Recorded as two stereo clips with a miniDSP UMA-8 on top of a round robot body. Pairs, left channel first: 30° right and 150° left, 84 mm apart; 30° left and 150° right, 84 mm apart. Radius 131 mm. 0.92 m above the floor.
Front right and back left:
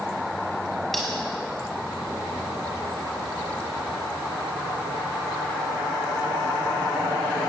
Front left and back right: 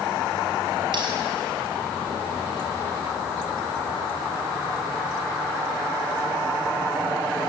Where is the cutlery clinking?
120° right, 5 m.